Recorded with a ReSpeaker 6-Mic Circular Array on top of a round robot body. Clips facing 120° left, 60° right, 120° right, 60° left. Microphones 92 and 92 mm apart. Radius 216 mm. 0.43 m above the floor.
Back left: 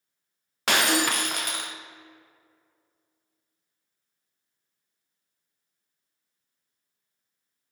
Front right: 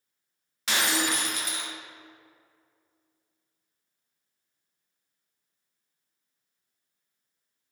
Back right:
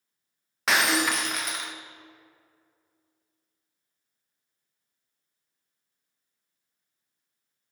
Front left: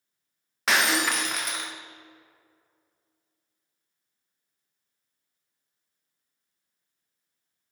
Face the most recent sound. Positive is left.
turn(degrees=150)